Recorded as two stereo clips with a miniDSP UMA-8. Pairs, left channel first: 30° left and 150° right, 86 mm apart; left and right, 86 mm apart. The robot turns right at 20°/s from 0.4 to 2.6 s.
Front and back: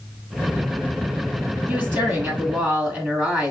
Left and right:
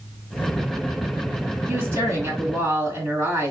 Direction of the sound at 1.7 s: 125° right.